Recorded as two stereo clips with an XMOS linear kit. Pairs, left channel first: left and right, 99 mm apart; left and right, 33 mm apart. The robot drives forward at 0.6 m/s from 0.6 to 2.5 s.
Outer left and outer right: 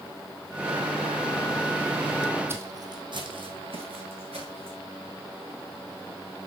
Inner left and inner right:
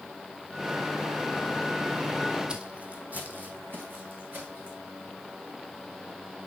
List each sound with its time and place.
2.5 s footsteps: 25° right (ahead or behind), 1.4 m; by 4.8 s 80° right, 4 m